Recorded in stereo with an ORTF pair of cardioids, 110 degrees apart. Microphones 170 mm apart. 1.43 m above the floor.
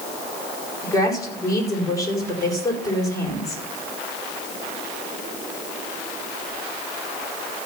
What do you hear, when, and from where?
0.8 s a woman speaking: 20° left, 5 m